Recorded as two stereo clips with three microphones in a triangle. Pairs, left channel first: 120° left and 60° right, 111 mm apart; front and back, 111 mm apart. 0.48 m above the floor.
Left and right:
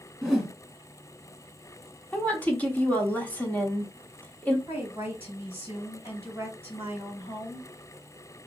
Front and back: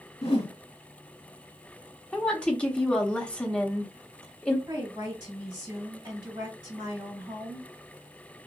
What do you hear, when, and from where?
0.2 s a whoosh: 30° left, 1.0 m
2.1 s a woman speaking: 65° left, 0.8 m
4.7 s a woman speaking: 130° left, 2 m